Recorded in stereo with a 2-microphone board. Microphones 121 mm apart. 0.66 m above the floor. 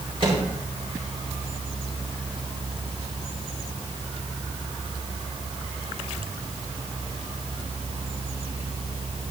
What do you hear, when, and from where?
0.2 s a microwave: 45° right (ahead or behind), 4 m